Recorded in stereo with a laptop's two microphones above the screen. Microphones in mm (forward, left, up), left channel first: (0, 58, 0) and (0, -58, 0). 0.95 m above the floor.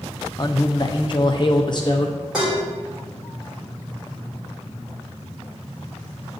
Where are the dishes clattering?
5° right (ahead or behind), 2.5 m.